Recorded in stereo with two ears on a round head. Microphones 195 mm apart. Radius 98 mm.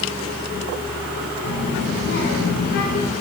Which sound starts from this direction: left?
A child speaking, at 1.4 s.